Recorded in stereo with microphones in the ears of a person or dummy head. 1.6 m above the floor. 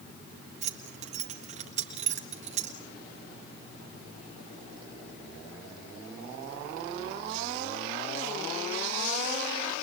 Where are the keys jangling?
45° right (ahead or behind), 1.4 m.